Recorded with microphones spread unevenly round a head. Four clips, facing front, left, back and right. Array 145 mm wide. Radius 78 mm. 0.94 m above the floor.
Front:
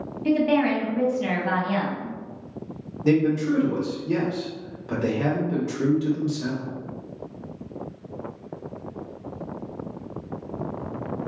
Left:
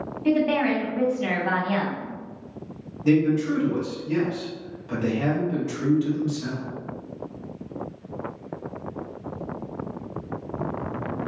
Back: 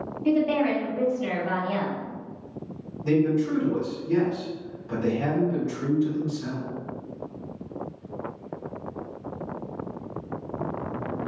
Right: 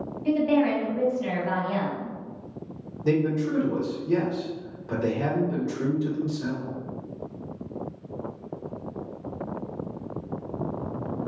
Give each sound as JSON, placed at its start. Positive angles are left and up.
{"t": 0.2, "sound": "a woman speaking", "azimuth_deg": 60, "distance_m": 1.2}
{"t": 3.0, "sound": "a man speaking", "azimuth_deg": -20, "distance_m": 1.4}